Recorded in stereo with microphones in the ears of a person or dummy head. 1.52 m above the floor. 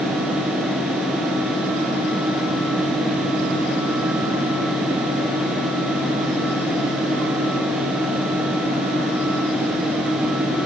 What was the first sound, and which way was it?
Only background noise.